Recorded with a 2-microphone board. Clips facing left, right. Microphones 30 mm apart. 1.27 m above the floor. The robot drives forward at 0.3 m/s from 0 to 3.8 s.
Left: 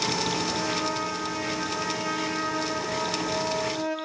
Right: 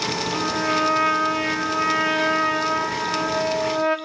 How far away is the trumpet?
About 3 m.